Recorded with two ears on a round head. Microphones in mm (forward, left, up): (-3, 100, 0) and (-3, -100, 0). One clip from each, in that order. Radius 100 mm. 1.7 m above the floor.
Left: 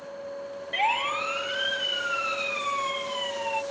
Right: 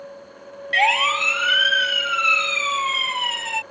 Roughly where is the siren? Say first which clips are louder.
Right 8 dB; right.